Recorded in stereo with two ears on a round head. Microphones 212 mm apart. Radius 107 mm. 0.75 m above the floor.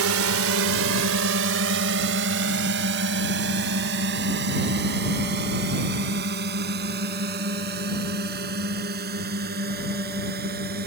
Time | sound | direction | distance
0.0 | a drone | 65° right (ahead or behind) | ?